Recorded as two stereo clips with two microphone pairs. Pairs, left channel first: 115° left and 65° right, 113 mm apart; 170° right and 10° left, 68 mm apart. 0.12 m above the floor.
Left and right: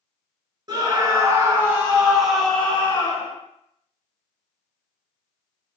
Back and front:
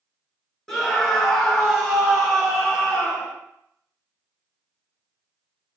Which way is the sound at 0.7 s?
90° right.